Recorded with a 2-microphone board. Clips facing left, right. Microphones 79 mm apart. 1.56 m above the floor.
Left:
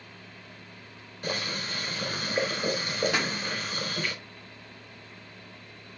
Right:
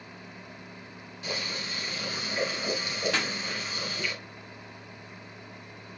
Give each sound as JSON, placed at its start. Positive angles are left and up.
{"t": 1.2, "sound": "boiling", "side_deg": 45, "distance_m": 6.0}
{"t": 3.1, "sound": "a pop", "side_deg": 10, "distance_m": 1.2}